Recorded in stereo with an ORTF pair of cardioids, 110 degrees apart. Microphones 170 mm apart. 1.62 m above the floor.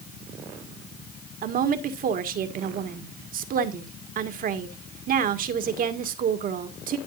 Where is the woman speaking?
55° right, 1.9 m.